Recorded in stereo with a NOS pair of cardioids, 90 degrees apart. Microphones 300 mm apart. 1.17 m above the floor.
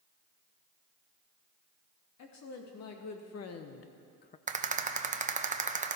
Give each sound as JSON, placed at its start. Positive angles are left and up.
{"t": 2.2, "sound": "a woman speaking", "azimuth_deg": 65, "distance_m": 2.5}
{"t": 4.5, "sound": "a rattle", "azimuth_deg": -25, "distance_m": 0.8}